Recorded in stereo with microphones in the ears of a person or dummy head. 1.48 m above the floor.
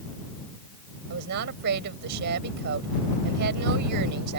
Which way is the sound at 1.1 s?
60° right (ahead or behind).